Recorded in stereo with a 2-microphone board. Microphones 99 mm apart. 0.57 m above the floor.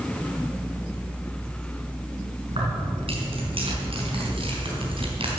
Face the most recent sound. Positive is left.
turn(degrees=-70)  # may be behind; listen again after turning